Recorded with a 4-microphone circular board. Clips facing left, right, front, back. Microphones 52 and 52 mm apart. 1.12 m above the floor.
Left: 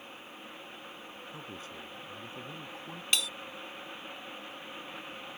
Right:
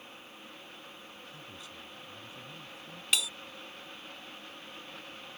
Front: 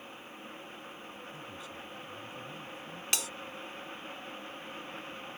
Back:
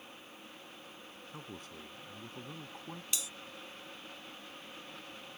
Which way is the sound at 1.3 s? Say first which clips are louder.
Left 4 dB, front 3 dB; 140° left.